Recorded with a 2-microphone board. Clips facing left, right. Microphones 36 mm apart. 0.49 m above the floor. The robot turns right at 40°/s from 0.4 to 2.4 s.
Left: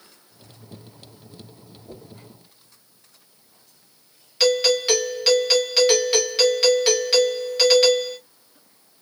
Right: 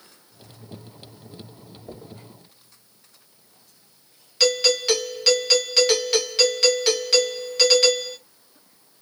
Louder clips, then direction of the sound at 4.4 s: Left 2 dB; 5° left (ahead or behind).